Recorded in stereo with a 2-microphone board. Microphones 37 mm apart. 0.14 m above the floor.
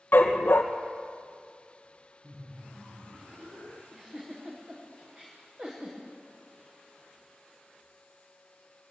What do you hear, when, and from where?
0.1 s a dog barking: 55° left (ahead or behind), 2.5 m
2.2 s laughter: 60° right (ahead or behind), 5.5 m
3.9 s a giggle: 20° right (ahead or behind), 8 m